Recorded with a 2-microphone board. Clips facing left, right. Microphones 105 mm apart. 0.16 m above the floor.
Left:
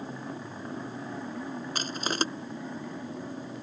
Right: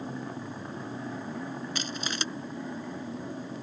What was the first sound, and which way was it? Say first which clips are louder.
Crushing: left 4 dB; 45° left (ahead or behind).